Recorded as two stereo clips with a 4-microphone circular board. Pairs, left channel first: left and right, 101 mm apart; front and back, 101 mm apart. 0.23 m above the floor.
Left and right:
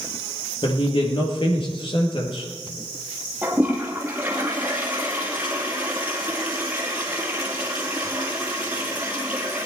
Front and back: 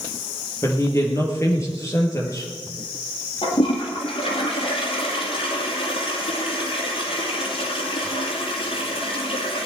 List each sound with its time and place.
0.6 s a woman speaking: 60° left, 4 m
3.4 s a toilet flushing: 15° right, 3 m